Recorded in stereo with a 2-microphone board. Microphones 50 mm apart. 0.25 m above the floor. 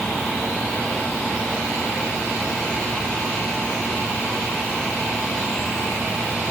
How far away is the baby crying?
No baby crying in this recording.